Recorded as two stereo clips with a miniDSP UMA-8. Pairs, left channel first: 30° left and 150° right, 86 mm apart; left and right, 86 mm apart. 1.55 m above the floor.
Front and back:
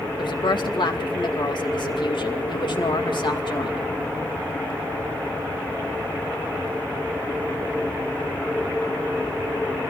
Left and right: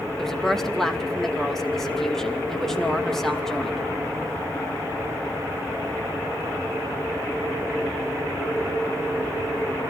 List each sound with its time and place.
0.2 s a woman speaking: 5° left, 2.5 m